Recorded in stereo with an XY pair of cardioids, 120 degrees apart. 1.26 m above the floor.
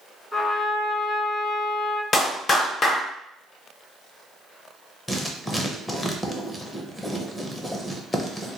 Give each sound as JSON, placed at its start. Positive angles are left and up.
{"t": 0.3, "sound": "a trumpet", "azimuth_deg": 20, "distance_m": 1.4}
{"t": 2.1, "sound": "a clap", "azimuth_deg": 35, "distance_m": 0.7}
{"t": 5.1, "sound": "writing", "azimuth_deg": 15, "distance_m": 0.7}